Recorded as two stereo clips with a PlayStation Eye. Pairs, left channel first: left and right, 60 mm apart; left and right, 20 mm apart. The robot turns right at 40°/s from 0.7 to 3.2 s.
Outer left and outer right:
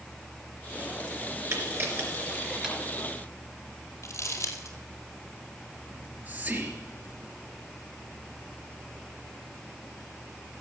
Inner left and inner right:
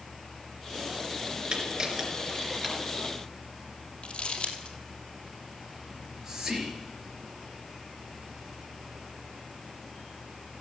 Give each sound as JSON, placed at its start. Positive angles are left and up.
{"t": 1.5, "sound": "a camera shutter", "side_deg": -50, "distance_m": 3.5}
{"t": 4.0, "sound": "crumpling", "side_deg": 50, "distance_m": 2.0}
{"t": 5.9, "sound": "whispering", "side_deg": -25, "distance_m": 3.5}